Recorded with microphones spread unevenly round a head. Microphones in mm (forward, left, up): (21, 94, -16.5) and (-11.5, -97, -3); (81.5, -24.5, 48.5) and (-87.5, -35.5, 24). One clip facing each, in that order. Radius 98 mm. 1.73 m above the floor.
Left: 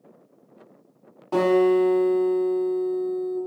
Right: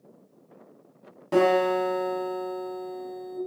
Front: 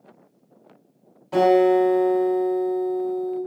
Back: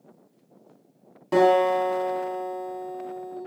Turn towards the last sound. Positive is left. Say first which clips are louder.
# left 3 dB, front 3 dB
turn(degrees=-160)